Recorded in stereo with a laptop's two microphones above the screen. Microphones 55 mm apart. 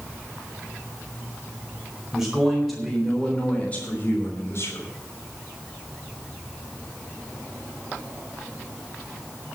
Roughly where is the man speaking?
Centre.